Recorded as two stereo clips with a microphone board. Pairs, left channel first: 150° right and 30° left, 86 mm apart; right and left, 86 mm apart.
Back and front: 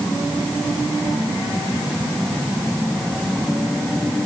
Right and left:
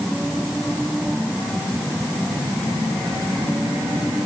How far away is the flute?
I don't hear a flute.